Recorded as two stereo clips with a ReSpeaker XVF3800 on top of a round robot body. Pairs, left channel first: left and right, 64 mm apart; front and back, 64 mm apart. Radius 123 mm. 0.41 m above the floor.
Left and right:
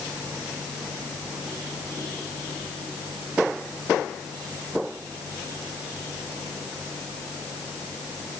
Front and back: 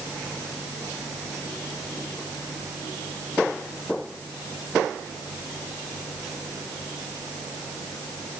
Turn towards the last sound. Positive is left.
No sound to turn to.